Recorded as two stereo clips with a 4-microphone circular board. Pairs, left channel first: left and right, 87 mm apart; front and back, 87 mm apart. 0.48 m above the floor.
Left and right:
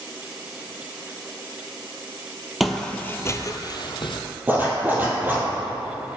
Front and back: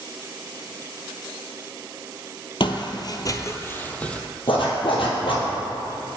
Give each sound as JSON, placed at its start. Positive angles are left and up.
{"t": 2.6, "sound": "footsteps", "azimuth_deg": -5, "distance_m": 0.7}
{"t": 4.5, "sound": "a zipper", "azimuth_deg": -25, "distance_m": 2.0}